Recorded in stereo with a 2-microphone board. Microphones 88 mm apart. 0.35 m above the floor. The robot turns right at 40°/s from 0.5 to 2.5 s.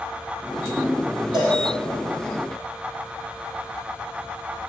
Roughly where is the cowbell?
Right.